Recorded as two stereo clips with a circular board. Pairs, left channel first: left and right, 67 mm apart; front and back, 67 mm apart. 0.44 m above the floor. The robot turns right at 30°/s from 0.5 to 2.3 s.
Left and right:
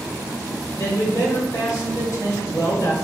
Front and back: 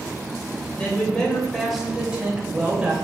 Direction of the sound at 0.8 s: 65° left.